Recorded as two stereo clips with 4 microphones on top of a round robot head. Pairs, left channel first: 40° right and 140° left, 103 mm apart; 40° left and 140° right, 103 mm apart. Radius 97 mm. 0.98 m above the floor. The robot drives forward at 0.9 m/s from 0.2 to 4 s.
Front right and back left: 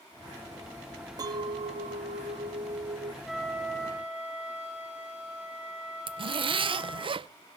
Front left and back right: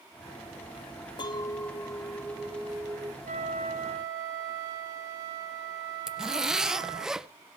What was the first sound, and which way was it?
A clink, 85° left.